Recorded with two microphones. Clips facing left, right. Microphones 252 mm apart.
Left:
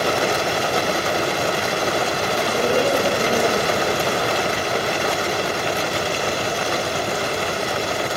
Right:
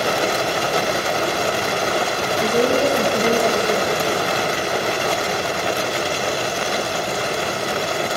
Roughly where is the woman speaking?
Right.